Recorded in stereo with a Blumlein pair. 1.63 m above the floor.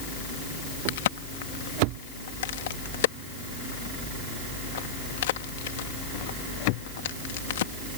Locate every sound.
0.9 s a crack: 55° left